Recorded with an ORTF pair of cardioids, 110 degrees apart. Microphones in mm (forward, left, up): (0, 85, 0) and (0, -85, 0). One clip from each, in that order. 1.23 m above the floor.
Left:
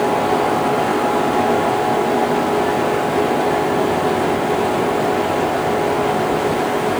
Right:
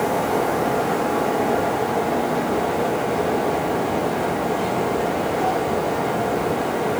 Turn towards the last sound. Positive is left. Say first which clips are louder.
# left 4 dB
turn(degrees=70)